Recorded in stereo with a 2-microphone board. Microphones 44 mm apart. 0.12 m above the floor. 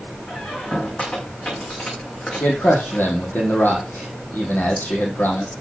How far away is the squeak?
About 5 m.